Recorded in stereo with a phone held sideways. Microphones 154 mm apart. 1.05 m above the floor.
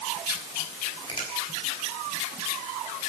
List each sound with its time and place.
1.1 s a finger snap: 30° left (ahead or behind), 5 m